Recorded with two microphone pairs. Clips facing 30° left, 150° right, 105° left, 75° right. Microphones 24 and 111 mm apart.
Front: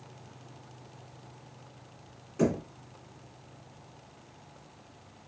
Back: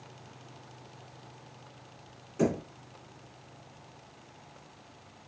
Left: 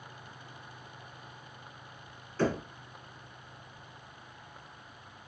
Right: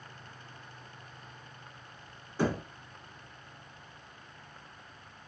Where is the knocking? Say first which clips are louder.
Front 1 dB, left 1 dB; 25° right, 1.0 m.